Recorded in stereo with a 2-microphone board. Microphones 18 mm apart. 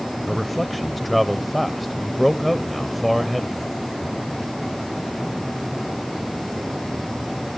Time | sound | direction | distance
0.3 | a man speaking | centre (ahead or behind) | 0.9 m